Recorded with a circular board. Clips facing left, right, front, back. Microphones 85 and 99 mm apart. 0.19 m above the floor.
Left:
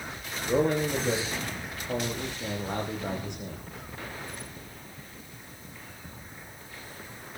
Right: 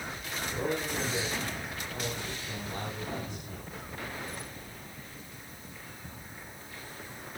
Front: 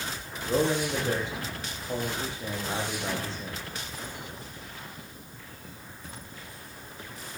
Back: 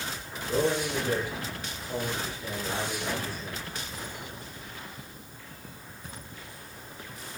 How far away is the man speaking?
About 9 m.